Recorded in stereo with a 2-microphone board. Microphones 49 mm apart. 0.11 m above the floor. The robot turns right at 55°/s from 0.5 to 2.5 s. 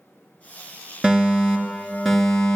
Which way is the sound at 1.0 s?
20° right (ahead or behind).